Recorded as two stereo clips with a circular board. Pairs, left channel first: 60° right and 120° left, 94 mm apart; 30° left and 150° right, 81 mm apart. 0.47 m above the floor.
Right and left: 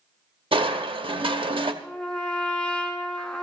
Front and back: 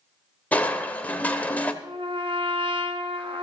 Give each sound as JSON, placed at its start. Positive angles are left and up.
{"t": 0.5, "sound": "crushing", "azimuth_deg": 100, "distance_m": 0.9}
{"t": 1.8, "sound": "a trumpet", "azimuth_deg": -140, "distance_m": 1.6}